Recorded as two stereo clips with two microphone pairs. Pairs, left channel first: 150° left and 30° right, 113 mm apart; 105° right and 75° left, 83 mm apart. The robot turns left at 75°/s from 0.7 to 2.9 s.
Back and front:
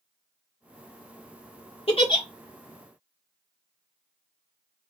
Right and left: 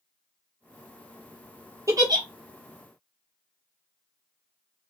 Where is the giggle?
125° left, 0.8 m; by 2.2 s 95° left, 0.8 m.